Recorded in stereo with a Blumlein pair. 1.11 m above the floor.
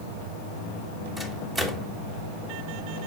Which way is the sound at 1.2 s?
15° right.